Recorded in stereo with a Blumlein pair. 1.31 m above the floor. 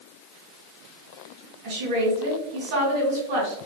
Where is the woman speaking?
50° right, 1.4 m.